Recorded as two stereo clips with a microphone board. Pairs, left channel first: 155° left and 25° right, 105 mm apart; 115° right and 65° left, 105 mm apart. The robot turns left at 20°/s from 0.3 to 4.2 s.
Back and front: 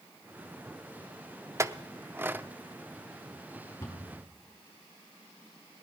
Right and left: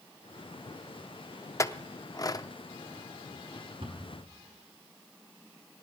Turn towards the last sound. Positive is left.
turn(degrees=80)